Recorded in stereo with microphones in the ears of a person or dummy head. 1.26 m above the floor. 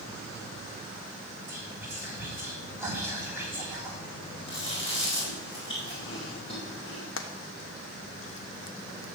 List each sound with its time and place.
1.5 s whispering: 20° right (ahead or behind), 3 m
4.5 s chewing: 25° left (ahead or behind), 4 m
7.2 s frying: 75° left (ahead or behind), 1.0 m